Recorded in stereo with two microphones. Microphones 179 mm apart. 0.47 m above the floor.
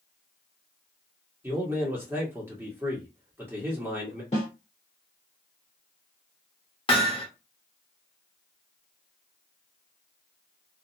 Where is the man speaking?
10° right (ahead or behind), 1.3 m.